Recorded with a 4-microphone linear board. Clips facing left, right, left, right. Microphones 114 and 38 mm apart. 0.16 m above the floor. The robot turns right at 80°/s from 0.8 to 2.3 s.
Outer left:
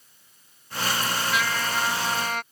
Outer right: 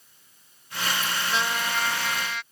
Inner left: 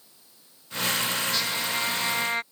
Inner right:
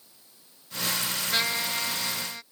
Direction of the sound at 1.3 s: 30° right.